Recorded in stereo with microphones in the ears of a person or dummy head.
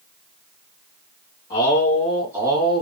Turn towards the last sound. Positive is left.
turn(degrees=-30)  # may be behind; listen again after turning